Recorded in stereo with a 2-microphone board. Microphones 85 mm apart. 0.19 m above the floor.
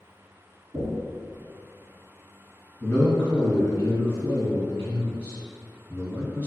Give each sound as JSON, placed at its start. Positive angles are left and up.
{"t": 0.7, "sound": "knocking", "side_deg": 25, "distance_m": 1.4}
{"t": 2.8, "sound": "a man speaking", "side_deg": 20, "distance_m": 1.3}